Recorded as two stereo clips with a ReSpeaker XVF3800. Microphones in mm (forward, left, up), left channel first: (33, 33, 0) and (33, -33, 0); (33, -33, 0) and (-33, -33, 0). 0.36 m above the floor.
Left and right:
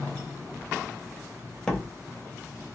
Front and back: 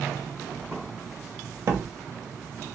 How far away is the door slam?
About 0.7 m.